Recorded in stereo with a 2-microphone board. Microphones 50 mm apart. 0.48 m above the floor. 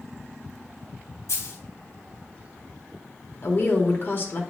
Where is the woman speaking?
45° left (ahead or behind), 1.1 m.